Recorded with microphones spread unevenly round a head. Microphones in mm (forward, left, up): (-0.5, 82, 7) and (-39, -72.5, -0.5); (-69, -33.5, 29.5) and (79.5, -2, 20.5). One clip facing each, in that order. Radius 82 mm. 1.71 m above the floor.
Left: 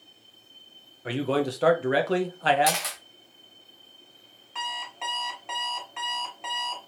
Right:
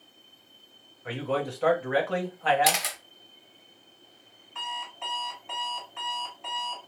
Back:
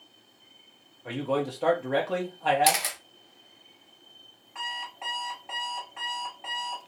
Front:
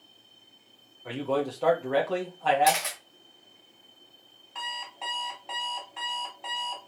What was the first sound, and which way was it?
A man speaking, 110° left.